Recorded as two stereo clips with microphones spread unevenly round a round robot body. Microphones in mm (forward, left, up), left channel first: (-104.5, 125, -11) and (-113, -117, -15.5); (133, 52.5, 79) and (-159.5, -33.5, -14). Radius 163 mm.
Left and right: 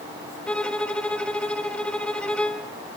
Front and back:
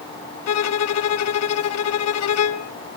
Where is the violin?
5° left, 0.8 m.